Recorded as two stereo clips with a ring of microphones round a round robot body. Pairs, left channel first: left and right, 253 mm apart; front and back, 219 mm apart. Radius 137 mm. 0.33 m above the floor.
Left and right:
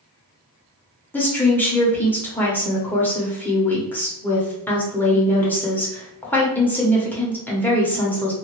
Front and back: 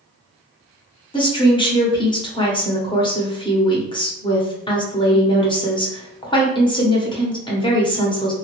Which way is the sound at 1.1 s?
20° left.